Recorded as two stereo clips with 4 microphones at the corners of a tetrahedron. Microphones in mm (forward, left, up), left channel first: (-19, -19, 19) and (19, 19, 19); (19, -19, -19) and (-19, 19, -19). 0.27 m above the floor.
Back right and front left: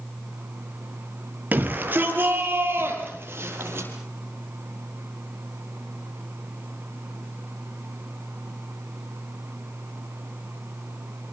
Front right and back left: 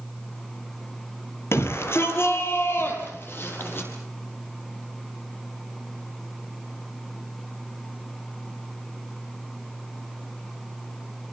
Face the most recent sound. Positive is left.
turn(degrees=0)